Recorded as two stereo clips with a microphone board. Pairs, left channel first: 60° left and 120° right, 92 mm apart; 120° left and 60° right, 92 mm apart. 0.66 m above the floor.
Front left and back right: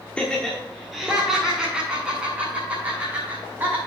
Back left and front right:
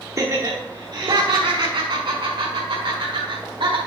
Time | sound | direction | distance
0.2 | laughter | 15° right | 1.3 m